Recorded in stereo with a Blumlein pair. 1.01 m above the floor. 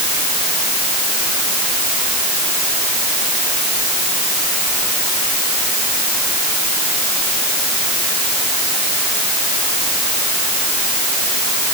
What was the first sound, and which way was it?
Only background noise.